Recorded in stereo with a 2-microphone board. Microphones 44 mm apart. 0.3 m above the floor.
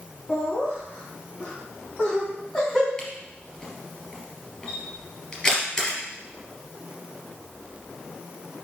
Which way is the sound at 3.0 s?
15° left (ahead or behind).